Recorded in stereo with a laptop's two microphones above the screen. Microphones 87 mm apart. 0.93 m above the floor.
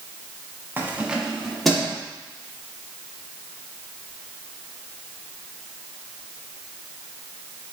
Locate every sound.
0.8 s keys jangling: 25° right (ahead or behind), 0.6 m; by 2.0 s 5° left (ahead or behind), 1.4 m